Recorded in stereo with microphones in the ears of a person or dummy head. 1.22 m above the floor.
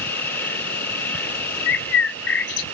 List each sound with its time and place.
0.0 s an insect: 10° left (ahead or behind)
1.7 s a bird: 65° left (ahead or behind)